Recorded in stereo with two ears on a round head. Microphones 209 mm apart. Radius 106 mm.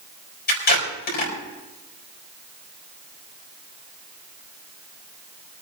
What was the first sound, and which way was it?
Tape being pulled, 45° left (ahead or behind).